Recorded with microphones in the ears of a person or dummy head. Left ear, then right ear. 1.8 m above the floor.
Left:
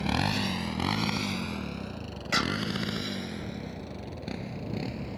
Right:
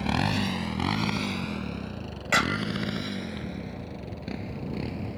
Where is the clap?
20° right (ahead or behind).